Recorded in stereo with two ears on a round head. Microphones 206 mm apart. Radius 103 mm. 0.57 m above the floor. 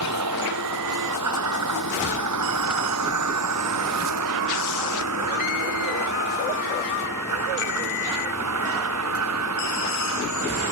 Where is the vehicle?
85° right; by 10.7 s 75° right (ahead or behind).